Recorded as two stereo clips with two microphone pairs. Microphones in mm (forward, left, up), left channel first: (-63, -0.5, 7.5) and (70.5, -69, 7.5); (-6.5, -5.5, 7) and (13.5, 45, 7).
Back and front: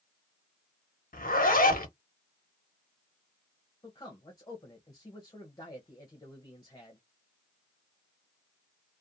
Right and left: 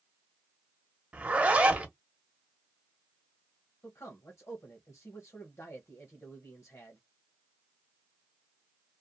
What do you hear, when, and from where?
1.1 s a zipper: 135° left, 0.8 m
3.8 s a man speaking: 140° right, 0.9 m